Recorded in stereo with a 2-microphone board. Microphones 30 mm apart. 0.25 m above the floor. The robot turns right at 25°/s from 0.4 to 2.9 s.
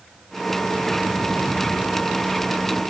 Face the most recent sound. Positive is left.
No sound to turn to.